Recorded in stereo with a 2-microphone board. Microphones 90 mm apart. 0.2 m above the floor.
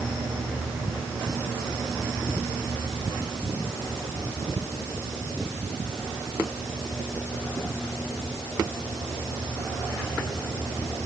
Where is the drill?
No drill in this recording.